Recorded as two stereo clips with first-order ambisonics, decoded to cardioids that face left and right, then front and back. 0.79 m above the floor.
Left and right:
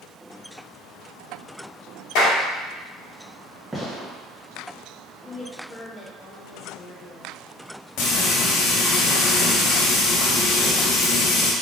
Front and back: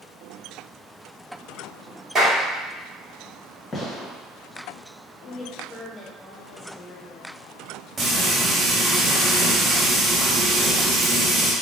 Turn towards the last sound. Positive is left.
turn(degrees=115)